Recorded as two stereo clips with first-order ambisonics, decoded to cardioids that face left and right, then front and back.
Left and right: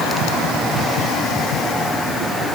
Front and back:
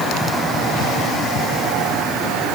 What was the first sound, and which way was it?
Only background noise.